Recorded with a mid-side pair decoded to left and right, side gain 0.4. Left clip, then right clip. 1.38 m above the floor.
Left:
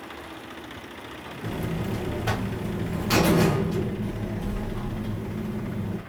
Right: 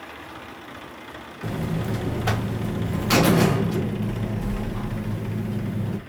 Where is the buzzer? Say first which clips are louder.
Right 2 dB; 35° right, 0.7 m.